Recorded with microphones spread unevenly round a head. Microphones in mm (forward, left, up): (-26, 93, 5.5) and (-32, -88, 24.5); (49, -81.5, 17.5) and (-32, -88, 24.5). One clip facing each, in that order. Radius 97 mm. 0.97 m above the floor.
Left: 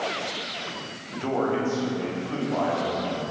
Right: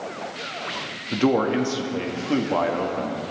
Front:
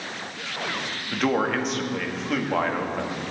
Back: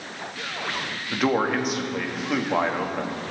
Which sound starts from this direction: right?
A man speaking, at 1.1 s.